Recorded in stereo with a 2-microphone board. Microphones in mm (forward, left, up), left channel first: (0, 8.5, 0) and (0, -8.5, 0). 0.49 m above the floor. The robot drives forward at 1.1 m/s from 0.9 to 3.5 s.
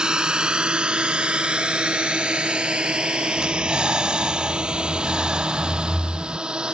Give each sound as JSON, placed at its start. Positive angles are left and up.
{"t": 0.0, "sound": "a drone", "side_deg": -55}
{"t": 3.4, "sound": "breathing", "side_deg": -60}